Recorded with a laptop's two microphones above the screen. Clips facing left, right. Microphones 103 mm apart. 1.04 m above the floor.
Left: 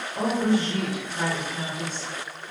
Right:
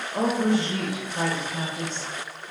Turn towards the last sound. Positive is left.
turn(degrees=-50)  # may be behind; listen again after turning